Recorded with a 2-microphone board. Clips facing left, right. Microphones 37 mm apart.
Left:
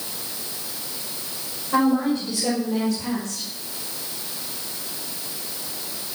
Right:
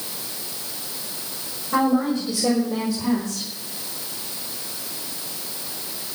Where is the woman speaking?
5° left (ahead or behind), 6 m; by 3.4 s 15° right (ahead or behind), 5 m.